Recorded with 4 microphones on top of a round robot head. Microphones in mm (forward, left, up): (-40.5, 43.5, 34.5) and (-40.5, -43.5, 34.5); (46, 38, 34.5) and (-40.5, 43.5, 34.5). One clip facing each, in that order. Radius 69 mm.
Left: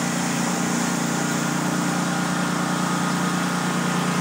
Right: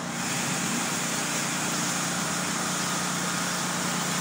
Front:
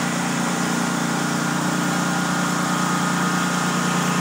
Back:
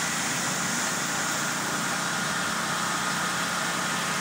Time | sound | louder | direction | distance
0.0 | a lawn mower | left 8 dB, front 8 dB | 40° left | ?